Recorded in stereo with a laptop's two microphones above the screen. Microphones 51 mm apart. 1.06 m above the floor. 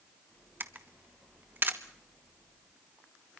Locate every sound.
0.6 s a camera shutter: 45° right (ahead or behind), 1.1 m